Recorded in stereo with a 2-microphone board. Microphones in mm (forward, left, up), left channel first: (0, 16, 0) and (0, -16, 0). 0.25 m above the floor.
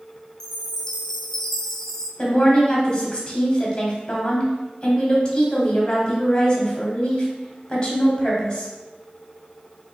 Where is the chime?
15° left (ahead or behind), 0.7 m.